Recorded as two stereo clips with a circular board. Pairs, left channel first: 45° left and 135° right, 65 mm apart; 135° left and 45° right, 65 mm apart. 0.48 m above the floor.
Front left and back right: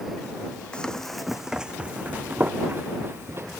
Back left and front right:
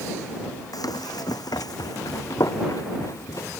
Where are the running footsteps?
120° left; by 3.5 s 175° left.